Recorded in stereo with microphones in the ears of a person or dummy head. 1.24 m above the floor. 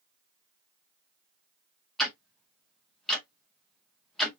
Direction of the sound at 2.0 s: 5° left (ahead or behind).